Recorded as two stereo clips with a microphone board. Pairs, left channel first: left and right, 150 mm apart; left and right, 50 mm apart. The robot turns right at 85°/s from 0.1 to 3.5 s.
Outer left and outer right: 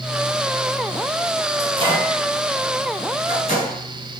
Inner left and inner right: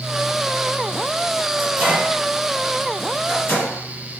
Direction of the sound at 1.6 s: 45° right (ahead or behind).